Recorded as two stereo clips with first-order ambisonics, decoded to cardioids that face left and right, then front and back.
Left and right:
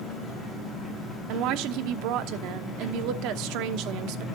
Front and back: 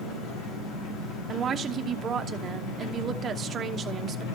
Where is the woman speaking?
115° right, 0.9 m.